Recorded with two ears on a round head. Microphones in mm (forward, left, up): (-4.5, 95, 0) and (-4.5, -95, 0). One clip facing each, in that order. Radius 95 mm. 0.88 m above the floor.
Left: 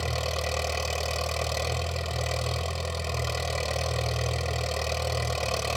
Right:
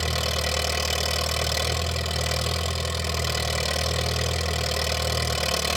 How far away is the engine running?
About 1.7 m.